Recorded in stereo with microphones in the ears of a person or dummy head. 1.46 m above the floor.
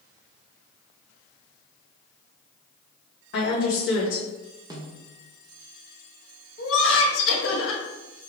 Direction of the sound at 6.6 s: 80° left.